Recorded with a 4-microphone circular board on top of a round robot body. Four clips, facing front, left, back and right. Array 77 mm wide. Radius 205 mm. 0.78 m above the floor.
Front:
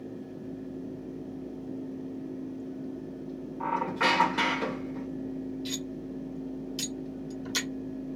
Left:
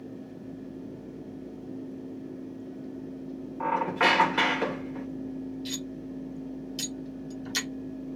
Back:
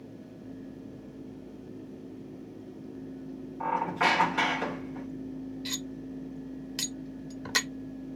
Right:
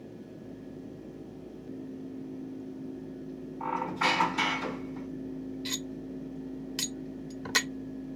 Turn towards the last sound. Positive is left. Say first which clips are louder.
# left 1 dB, front 2 dB
turn(degrees=-130)